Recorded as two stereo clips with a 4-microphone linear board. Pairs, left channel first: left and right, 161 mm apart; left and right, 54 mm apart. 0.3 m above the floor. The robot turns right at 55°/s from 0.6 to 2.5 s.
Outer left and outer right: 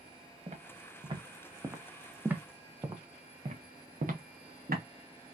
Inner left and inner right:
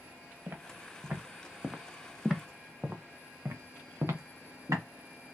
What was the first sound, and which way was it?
Footsteps, 45° right (ahead or behind).